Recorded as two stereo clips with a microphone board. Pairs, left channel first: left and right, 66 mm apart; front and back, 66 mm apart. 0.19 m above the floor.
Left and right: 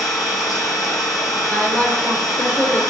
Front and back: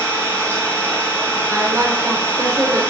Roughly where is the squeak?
No squeak in this recording.